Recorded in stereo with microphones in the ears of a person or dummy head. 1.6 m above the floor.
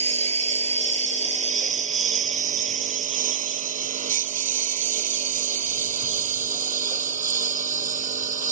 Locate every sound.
0.0 s a lawn mower: 35° right (ahead or behind); by 8.5 s 40° right (ahead or behind)